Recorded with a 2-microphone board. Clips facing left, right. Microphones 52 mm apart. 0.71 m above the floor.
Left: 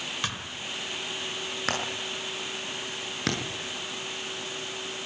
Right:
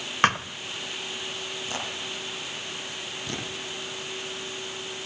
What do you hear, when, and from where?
0.2 s a thud: 55° right (ahead or behind), 1.2 m
1.7 s hammering: 85° left, 7.5 m